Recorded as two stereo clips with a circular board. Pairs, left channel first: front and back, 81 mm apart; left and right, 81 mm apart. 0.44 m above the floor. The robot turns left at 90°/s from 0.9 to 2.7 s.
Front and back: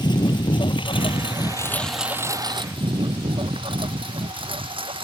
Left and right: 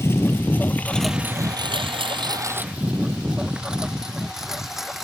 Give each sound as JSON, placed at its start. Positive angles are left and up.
{"t": 0.0, "sound": "a lawn mower", "azimuth_deg": 30}